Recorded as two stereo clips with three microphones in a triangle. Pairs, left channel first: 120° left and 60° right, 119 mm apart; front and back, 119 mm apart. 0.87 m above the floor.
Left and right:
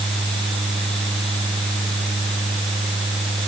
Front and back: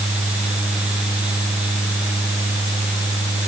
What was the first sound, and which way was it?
Only background noise.